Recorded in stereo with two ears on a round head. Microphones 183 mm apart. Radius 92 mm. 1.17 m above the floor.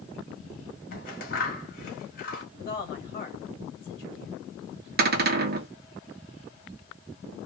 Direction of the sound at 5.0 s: 50° right (ahead or behind).